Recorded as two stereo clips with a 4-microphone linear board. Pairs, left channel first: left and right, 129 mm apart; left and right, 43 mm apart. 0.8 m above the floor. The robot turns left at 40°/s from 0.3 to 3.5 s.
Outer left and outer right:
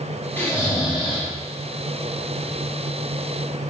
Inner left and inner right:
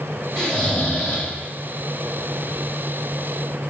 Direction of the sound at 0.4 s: 165° left.